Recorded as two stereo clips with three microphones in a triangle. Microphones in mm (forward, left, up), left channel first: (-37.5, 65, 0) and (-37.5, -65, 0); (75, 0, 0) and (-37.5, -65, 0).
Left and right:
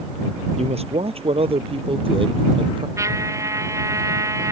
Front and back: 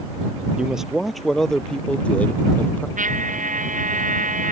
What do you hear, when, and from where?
0.6 s a man speaking: 65° right; by 2.9 s 45° right
3.0 s a trumpet: 155° right